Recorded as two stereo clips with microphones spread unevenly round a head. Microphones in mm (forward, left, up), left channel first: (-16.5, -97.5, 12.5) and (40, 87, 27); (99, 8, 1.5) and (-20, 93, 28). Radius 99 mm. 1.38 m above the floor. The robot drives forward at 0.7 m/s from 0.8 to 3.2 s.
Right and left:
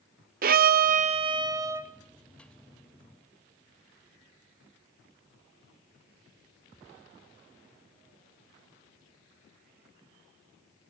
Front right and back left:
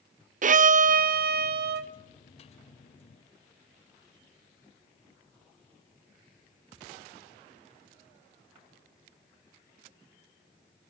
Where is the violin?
115° left, 0.6 m; by 1.9 s 150° left, 1.2 m.